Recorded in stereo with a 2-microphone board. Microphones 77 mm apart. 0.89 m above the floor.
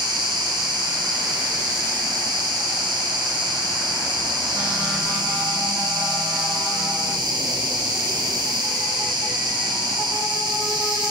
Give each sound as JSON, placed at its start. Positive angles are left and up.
{"t": 0.0, "sound": "an insect", "side_deg": -75, "distance_m": 3.0}